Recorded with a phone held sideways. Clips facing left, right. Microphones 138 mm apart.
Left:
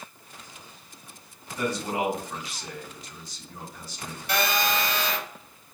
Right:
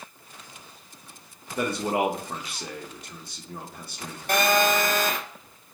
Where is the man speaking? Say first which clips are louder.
Right 3 dB; 60° right (ahead or behind), 1.0 m.